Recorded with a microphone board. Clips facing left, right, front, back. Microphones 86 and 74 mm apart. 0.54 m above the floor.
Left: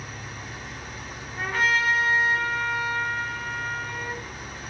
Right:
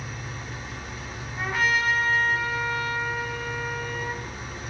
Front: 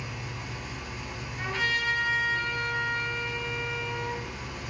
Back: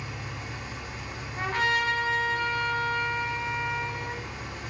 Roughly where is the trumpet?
Behind.